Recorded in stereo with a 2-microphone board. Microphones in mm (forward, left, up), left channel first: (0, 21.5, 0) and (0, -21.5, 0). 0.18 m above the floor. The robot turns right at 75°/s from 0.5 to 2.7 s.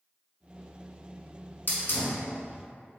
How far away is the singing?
No singing in this recording.